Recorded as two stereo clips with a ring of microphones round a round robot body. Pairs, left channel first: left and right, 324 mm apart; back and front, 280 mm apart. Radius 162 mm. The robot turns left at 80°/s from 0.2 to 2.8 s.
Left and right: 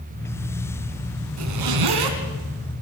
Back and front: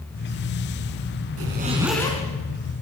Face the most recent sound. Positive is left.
turn(degrees=-160)